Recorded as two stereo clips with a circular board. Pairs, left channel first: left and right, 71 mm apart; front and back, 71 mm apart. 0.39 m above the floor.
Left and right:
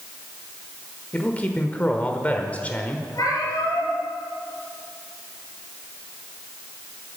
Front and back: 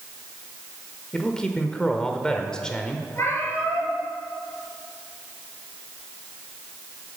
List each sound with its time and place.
1.1 s a man speaking: 60° left, 1.2 m
3.1 s a cat meowing: 55° left, 4 m